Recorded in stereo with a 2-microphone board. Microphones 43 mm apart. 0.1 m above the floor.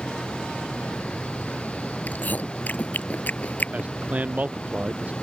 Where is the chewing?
45° left (ahead or behind).